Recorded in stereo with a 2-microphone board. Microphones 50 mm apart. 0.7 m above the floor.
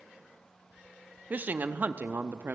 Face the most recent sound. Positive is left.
turn(degrees=-40)  # may be behind; listen again after turning